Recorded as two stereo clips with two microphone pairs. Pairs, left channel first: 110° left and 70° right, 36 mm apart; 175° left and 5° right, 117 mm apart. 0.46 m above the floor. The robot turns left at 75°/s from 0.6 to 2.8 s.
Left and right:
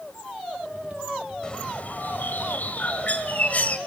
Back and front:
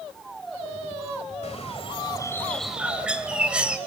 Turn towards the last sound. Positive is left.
turn(degrees=75)